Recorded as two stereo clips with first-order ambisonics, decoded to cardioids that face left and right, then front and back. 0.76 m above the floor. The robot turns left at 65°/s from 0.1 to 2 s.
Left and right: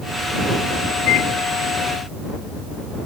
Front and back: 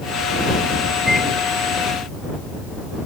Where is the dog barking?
I don't hear a dog barking.